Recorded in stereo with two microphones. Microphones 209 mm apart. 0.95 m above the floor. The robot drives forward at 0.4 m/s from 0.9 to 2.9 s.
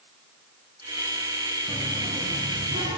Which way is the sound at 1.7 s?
25° right (ahead or behind).